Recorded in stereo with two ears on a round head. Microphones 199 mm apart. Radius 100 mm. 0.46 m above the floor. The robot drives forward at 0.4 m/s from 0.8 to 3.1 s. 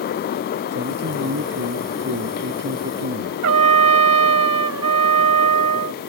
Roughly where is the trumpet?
Right.